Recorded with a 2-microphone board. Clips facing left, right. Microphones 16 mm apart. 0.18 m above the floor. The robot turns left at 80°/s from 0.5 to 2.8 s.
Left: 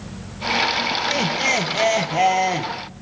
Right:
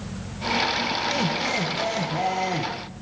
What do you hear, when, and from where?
1.1 s laughter: 155° left, 4.5 m; by 2.7 s 25° left, 4.5 m